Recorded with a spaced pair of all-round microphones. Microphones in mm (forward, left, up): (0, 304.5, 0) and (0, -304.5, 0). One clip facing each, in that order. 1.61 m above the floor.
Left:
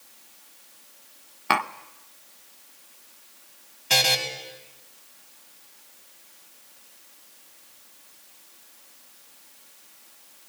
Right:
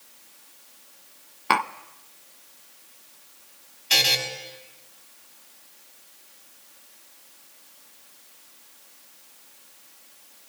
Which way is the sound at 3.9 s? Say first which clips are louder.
Left 3 dB; 80° left.